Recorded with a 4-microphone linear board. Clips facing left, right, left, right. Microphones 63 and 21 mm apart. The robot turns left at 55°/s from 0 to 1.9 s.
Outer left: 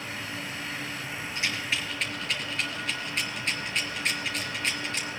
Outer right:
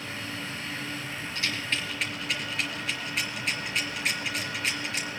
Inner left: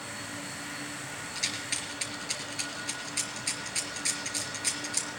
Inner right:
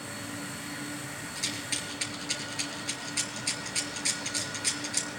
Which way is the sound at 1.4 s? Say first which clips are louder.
Outer left 1 dB, inner left 1 dB; 25° left (ahead or behind).